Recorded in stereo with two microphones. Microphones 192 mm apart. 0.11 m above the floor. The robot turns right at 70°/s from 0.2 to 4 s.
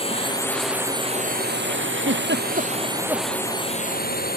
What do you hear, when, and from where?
0.0 s a drone: 30° left (ahead or behind); by 4.4 s 50° left (ahead or behind)
2.0 s a giggle: 85° right; by 3.3 s centre (ahead or behind)